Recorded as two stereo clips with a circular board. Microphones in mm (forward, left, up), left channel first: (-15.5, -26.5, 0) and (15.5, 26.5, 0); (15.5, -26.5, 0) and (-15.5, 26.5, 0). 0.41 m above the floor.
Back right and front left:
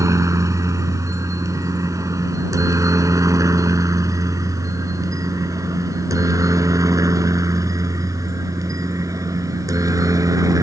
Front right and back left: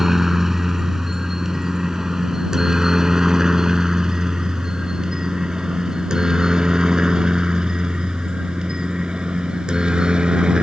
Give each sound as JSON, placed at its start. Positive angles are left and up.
{"t": 0.0, "sound": "a helicopter", "azimuth_deg": 35}